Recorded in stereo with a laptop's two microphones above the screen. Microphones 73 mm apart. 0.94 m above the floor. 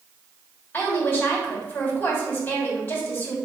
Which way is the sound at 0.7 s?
20° left (ahead or behind).